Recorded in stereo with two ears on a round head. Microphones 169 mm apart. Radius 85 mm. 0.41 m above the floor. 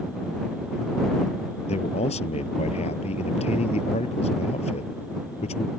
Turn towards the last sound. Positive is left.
turn(degrees=35)  # may be behind; listen again after turning